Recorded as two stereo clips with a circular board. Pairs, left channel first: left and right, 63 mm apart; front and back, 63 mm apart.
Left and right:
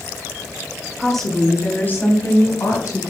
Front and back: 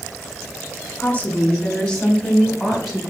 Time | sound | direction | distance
1.0 | a woman speaking | 5° right | 1.2 m